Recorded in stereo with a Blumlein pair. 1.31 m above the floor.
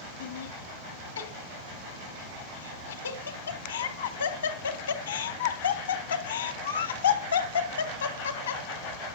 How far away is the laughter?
About 2 m.